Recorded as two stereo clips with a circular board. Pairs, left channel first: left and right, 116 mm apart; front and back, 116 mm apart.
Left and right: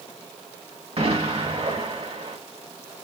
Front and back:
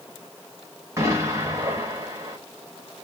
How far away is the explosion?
About 1.5 m.